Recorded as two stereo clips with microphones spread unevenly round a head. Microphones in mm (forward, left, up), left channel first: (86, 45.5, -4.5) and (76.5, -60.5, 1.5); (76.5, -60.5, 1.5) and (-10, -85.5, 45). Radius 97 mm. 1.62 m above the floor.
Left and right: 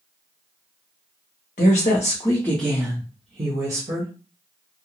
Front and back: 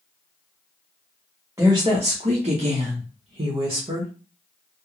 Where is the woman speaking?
125° left, 0.7 m; by 4.1 s 140° right, 1.1 m.